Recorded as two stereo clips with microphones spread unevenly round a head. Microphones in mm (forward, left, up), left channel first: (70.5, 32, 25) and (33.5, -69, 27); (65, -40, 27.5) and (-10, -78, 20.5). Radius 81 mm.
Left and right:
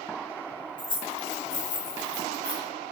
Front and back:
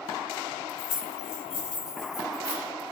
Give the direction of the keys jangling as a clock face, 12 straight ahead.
11 o'clock.